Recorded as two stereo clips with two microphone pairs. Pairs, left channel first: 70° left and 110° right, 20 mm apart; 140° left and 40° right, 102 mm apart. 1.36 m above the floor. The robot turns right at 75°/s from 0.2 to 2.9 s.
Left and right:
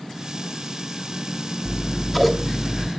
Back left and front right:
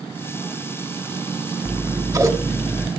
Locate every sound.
1.6 s scissors: 55° right, 1.0 m; by 2.9 s 35° left, 1.0 m